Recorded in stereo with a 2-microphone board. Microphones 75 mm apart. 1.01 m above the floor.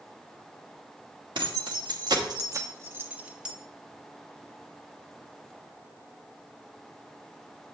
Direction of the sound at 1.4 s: 80° right.